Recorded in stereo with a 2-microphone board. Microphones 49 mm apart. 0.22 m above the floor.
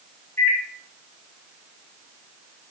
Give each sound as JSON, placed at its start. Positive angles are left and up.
{"t": 0.4, "sound": "a microwave", "side_deg": 55, "distance_m": 2.5}